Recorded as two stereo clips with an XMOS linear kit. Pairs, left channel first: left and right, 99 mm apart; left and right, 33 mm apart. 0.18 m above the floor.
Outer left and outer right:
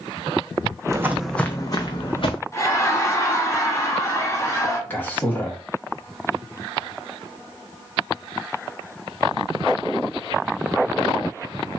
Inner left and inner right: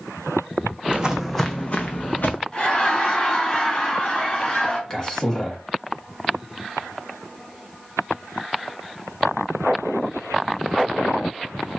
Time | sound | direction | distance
0.9 | footsteps | 35° right (ahead or behind) | 0.6 m
2.5 | laughter | 30° left (ahead or behind) | 1.3 m
4.9 | a man speaking | 20° left (ahead or behind) | 1.2 m